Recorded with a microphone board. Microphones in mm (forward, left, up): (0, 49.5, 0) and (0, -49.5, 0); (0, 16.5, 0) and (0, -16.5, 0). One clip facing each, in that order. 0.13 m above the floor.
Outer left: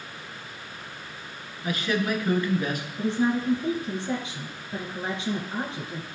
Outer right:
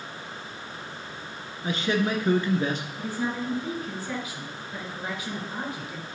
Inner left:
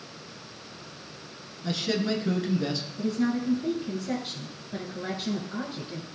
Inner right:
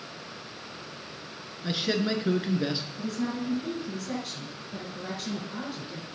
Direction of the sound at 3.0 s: 30° left (ahead or behind).